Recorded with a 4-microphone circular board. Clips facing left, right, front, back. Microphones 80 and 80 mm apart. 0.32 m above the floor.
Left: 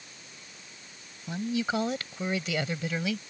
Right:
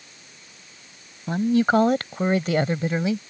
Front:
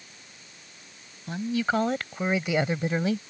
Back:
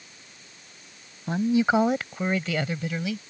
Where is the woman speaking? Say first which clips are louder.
Right 10 dB, back 5 dB; 125° right; by 3.2 s 35° right.